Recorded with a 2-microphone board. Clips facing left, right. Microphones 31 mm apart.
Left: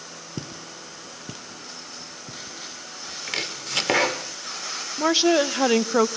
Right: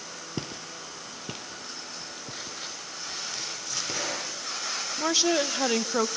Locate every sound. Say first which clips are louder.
0.4 s footsteps: even; 25° right (ahead or behind), 1.3 m; by 3.2 s 20° right (ahead or behind), 2.5 m
3.3 s chopping: left 6 dB; 75° left (ahead or behind), 1.7 m
5.0 s a woman speaking: left 6 dB; 20° left (ahead or behind), 0.6 m